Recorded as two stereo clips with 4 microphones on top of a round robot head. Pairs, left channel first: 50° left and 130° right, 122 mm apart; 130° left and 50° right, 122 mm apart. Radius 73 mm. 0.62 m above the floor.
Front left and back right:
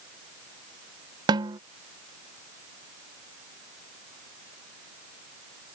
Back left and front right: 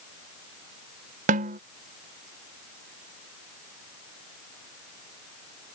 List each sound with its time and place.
1.3 s a snare drum: 75° right